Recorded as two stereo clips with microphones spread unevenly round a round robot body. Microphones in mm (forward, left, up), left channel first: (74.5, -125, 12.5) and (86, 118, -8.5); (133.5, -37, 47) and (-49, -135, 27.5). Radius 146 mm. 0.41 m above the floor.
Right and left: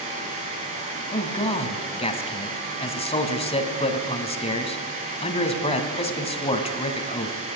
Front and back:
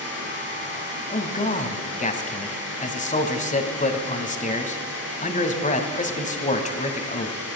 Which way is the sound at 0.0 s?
25° left.